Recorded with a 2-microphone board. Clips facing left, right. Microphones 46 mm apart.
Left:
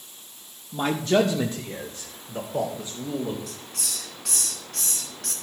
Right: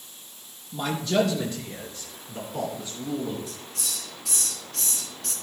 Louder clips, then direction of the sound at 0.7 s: Left 3 dB; 30° left (ahead or behind).